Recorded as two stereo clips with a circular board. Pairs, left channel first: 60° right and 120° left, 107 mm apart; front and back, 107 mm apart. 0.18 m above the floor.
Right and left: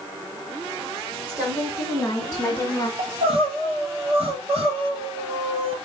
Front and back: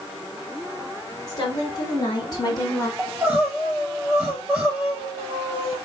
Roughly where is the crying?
Left.